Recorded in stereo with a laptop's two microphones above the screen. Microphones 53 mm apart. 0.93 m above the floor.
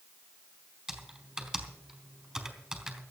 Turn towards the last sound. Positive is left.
turn(degrees=-10)  # may be behind; listen again after turning